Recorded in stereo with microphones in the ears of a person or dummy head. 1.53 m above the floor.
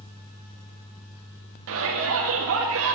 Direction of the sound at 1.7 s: 75° right (ahead or behind).